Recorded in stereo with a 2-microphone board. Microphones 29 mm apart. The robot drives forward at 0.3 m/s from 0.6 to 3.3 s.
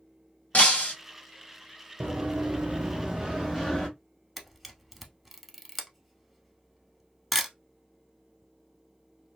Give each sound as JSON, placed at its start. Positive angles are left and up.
{"t": 0.5, "sound": "breaking glass", "side_deg": 60, "distance_m": 1.0}
{"t": 2.0, "sound": "running footsteps", "side_deg": -85, "distance_m": 1.1}
{"t": 4.4, "sound": "a camera shutter", "side_deg": 0, "distance_m": 0.6}